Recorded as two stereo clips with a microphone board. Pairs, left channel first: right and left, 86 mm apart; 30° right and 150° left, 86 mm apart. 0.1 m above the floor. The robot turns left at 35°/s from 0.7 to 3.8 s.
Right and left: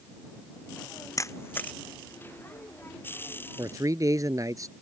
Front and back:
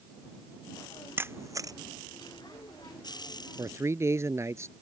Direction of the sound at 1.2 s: 145° right.